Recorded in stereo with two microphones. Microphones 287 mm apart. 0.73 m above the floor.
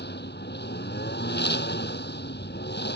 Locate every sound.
0.0 s a lawn mower: 40° left (ahead or behind)